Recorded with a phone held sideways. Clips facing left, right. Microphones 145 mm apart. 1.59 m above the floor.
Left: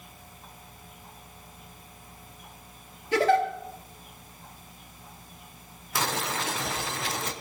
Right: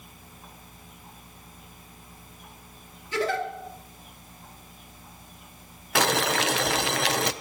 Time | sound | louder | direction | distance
3.1 | a giggle | left 5 dB | 65° left (ahead or behind) | 3 m
6.0 | boiling | right 6 dB | 85° right | 0.8 m